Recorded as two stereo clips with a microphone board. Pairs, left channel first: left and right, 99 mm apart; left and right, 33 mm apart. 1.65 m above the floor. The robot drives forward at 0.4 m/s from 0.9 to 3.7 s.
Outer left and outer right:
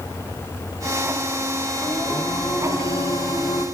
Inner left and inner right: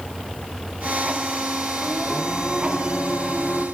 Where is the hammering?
No hammering in this recording.